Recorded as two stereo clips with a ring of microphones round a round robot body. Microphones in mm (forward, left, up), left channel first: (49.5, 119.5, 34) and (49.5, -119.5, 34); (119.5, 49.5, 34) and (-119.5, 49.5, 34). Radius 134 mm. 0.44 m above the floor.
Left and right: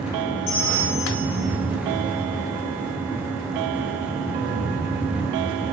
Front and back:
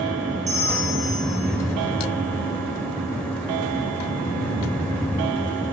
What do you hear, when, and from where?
0.5 s a bell: 120° left, 3 m